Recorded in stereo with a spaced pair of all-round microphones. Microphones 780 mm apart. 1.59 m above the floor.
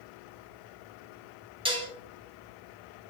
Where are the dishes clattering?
5° right (ahead or behind), 0.5 m.